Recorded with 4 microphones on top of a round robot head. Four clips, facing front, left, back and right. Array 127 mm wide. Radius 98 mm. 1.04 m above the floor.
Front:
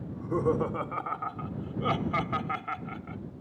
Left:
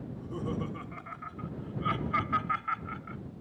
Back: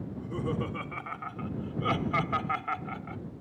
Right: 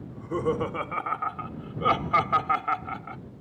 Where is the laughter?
40° right; by 3.2 s 100° right.